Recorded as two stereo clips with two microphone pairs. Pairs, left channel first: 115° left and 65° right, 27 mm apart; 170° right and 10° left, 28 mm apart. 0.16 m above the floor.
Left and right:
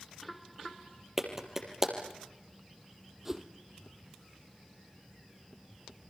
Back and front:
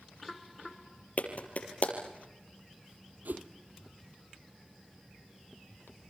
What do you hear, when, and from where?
1.2 s a clap: 145° right, 4 m
3.2 s a whoosh: 10° left, 1.6 m